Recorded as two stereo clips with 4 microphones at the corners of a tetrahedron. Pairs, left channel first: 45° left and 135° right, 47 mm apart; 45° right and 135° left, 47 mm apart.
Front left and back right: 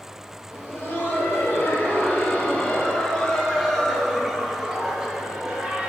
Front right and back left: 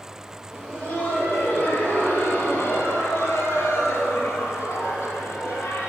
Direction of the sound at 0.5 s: 15° left.